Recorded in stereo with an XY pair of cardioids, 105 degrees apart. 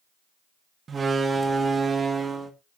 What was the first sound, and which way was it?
A door slam, 35° right.